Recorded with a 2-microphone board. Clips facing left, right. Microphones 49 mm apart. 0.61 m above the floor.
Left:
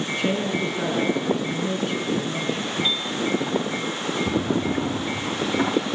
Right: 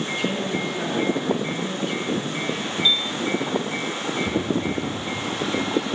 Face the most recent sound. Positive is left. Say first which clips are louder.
# left 2 dB
turn(degrees=30)  # may be behind; listen again after turning